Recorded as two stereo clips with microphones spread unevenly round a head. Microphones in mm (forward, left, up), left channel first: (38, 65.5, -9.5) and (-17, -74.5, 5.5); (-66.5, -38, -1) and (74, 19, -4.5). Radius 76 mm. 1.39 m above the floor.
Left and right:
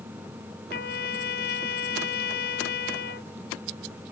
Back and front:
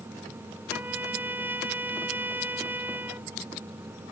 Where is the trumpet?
100° left.